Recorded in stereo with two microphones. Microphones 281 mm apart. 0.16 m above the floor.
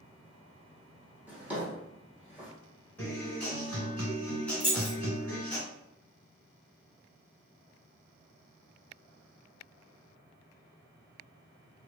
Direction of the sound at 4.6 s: 20° right (ahead or behind).